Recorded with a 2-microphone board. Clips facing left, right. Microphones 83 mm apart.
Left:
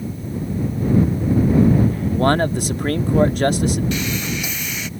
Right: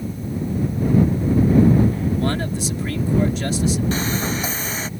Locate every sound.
2.1 s a man speaking: 55° left (ahead or behind)
3.9 s sawing: 35° right (ahead or behind)